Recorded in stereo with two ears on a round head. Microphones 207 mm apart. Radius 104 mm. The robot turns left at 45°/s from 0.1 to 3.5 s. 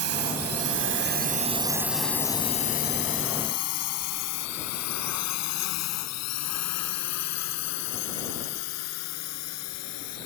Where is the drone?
70° right (ahead or behind); by 10.3 s 75° left (ahead or behind).